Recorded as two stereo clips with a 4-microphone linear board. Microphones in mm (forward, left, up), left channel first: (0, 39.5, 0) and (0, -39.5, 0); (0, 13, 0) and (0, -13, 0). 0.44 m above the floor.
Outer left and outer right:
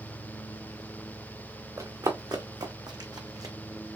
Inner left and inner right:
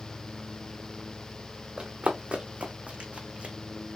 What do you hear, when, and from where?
1.8 s running footsteps: 50° right (ahead or behind), 1.3 m